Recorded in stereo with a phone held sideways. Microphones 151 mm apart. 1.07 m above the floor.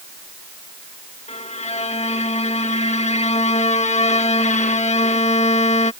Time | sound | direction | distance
1.3 | a violin | 50° left (ahead or behind) | ?